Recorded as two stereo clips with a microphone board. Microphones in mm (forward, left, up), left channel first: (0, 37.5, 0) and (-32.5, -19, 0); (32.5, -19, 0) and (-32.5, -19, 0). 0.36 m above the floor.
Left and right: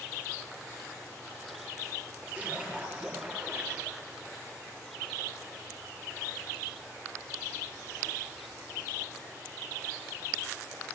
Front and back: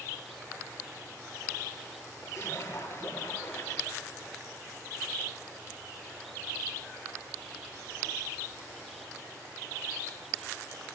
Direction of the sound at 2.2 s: 55° right.